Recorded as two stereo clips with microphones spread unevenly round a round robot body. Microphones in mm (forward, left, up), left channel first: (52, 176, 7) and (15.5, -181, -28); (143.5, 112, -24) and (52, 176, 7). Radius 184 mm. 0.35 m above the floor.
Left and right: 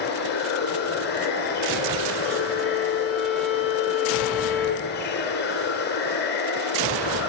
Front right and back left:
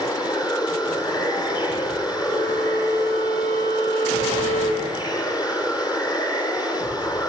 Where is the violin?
10° right, 8.5 m.